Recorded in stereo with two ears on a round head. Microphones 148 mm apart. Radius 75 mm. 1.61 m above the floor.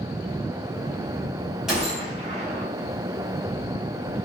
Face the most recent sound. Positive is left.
turn(degrees=-5)  # may be behind; listen again after turning